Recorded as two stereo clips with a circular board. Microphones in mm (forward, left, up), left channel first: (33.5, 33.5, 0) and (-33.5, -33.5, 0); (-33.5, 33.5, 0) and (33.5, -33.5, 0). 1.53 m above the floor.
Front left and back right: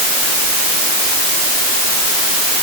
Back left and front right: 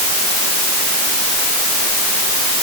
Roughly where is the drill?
No drill in this recording.